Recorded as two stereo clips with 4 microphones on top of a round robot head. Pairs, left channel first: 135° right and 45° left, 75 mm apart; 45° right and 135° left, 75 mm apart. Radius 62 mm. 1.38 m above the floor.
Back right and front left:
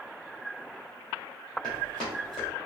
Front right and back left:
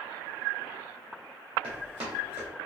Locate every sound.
1.6 s running footsteps: 140° left, 1.8 m